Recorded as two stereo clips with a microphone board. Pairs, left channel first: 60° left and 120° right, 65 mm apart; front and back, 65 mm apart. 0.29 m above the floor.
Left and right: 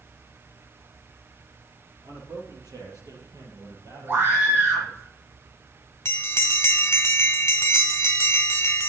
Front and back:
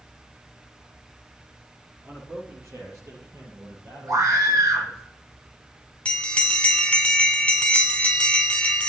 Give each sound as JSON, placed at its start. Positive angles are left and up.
{"t": 2.0, "sound": "a man speaking", "azimuth_deg": -130, "distance_m": 7.0}
{"t": 4.1, "sound": "a scream", "azimuth_deg": -175, "distance_m": 4.5}
{"t": 6.0, "sound": "a bell", "azimuth_deg": 60, "distance_m": 1.7}